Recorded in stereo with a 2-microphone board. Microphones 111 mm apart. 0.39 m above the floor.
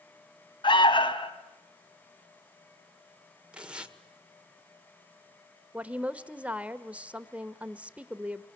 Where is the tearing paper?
10° right (ahead or behind), 1.4 m.